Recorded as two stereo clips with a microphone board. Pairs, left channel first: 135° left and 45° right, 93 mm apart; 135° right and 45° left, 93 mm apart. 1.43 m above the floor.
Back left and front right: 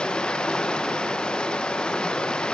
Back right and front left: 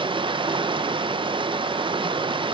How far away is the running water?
About 0.8 m.